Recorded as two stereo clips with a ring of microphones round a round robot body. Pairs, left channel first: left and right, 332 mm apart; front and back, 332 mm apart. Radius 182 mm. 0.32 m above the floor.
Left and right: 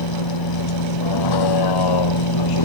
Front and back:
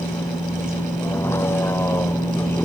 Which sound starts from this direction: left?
A vehicle, at 0.0 s.